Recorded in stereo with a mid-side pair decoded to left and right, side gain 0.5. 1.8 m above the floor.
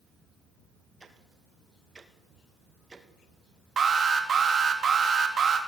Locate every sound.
1.0 s ticking: 20° right, 2 m
3.8 s an alarm: 40° right, 3 m